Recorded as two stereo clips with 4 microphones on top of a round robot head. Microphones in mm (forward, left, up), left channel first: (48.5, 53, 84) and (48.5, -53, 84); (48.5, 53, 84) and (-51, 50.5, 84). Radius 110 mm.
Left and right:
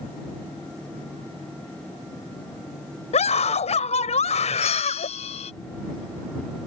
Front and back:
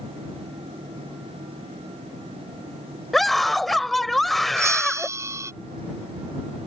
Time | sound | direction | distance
3.1 | a scream | 90° left | ?
4.6 | a bell | 120° left | ?